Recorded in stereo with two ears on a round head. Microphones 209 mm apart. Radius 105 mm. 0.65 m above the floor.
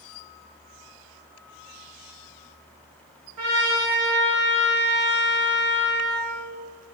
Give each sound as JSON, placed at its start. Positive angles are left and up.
{"t": 3.4, "sound": "a trumpet", "side_deg": -80, "distance_m": 1.9}